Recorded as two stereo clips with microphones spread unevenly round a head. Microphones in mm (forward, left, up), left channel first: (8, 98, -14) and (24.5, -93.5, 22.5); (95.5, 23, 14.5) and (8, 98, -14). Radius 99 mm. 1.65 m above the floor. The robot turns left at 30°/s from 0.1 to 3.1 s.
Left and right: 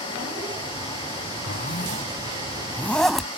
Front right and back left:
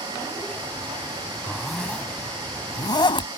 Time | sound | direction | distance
1.5 | a zipper | 50° left | ?